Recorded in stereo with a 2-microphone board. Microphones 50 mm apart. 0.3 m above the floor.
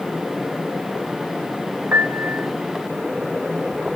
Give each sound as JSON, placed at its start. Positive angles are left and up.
{"t": 1.9, "sound": "a piano", "side_deg": -40, "distance_m": 0.6}